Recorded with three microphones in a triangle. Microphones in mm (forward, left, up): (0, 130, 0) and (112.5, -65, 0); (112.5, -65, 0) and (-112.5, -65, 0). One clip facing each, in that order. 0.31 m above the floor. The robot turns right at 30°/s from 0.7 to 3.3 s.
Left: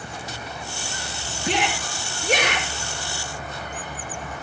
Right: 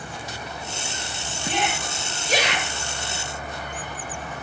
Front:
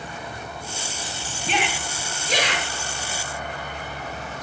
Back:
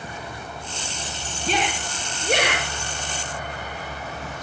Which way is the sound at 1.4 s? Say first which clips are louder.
Left 2 dB, back 2 dB; 125° left.